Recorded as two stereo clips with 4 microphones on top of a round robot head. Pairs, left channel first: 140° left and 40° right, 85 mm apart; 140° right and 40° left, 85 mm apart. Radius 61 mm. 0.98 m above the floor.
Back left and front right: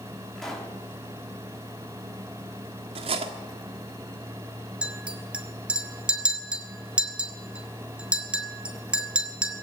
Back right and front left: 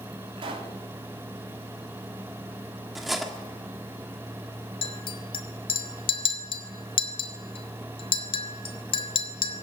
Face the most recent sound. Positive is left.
turn(degrees=-115)